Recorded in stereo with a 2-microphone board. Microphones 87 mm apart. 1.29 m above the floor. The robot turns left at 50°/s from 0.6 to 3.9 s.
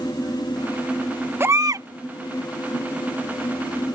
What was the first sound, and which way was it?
A baby crying, 25° right (ahead or behind).